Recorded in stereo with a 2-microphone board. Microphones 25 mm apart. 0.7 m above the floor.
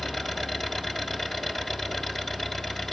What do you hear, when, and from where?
0.0 s an engine running: 15° left (ahead or behind), 2.5 m